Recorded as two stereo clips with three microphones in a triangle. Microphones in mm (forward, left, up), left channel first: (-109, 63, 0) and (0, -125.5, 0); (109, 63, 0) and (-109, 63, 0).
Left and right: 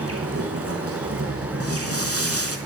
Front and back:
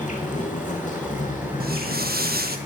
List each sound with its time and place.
0.0 s an insect: 55° right, 3 m
1.6 s footsteps: 130° left, 1.6 m